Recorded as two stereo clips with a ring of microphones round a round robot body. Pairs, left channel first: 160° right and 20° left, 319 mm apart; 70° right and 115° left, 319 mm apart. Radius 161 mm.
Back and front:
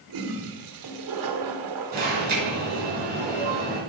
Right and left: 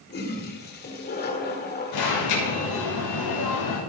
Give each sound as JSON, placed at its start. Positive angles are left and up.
{"t": 0.1, "sound": "a toilet flushing", "azimuth_deg": -5, "distance_m": 2.0}
{"t": 1.9, "sound": "an alarm", "azimuth_deg": -40, "distance_m": 6.5}